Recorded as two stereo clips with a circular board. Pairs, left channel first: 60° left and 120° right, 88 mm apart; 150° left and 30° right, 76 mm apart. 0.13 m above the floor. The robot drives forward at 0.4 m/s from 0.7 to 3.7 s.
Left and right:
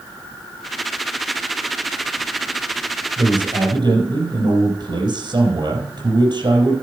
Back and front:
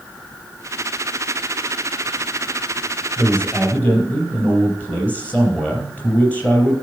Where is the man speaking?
140° right, 3.5 m.